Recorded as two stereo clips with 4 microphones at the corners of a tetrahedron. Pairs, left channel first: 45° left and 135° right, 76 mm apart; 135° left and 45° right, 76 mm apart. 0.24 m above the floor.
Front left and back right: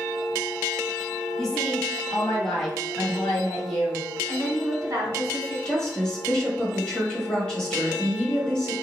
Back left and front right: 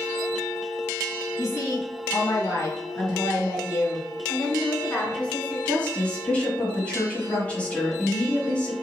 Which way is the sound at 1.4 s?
130° left.